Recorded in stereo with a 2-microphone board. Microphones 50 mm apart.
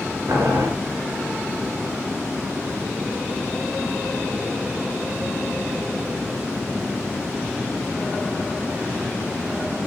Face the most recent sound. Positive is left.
turn(degrees=-80)